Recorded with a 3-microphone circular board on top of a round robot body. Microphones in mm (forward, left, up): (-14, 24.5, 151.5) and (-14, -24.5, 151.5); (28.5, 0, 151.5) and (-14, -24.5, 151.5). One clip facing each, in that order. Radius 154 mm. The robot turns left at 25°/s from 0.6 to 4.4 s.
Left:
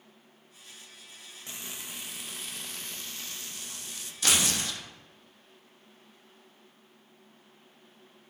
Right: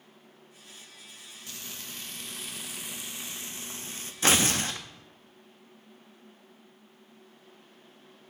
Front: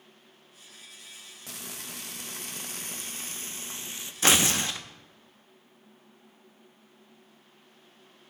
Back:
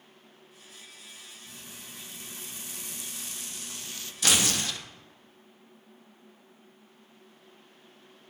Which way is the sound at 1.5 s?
25° left.